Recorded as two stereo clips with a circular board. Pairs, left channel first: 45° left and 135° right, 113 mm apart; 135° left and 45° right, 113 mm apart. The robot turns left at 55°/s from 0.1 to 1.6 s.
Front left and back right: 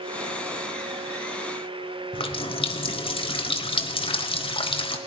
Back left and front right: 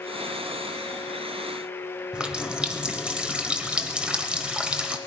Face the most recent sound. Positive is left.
turn(degrees=35)